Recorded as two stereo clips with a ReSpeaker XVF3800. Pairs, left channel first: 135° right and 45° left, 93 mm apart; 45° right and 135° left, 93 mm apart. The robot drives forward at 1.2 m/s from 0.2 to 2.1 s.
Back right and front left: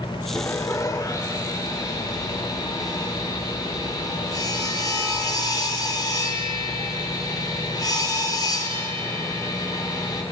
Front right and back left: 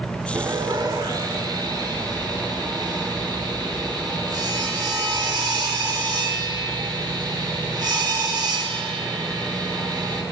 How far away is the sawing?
About 0.5 m.